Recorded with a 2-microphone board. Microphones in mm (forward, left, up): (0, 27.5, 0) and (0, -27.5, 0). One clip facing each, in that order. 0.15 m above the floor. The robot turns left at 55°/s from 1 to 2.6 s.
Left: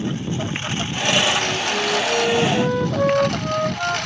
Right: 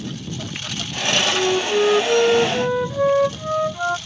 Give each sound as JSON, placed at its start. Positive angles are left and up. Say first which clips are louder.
{"t": 0.0, "sound": "a lawn mower", "louder": "left 6 dB", "azimuth_deg": 155}
{"t": 1.3, "sound": "a flute", "louder": "right 3 dB", "azimuth_deg": -100}